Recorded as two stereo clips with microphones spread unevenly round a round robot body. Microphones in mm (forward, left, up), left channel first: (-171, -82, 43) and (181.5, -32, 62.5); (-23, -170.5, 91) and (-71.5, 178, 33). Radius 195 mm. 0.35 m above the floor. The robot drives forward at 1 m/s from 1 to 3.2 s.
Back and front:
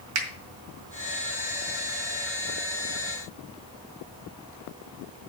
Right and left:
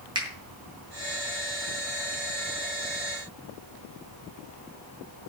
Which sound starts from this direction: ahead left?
A finger snap, at 0.1 s.